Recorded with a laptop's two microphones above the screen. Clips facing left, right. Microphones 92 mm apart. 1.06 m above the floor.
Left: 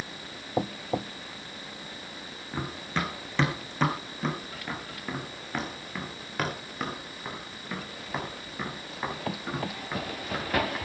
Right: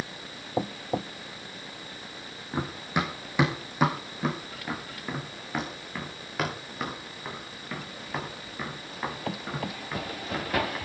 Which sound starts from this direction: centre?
Running footsteps, at 2.5 s.